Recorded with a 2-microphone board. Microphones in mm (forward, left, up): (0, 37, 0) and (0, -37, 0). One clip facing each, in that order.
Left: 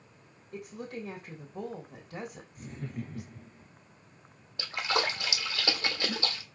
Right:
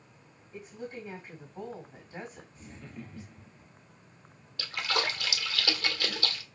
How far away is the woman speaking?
About 3.5 m.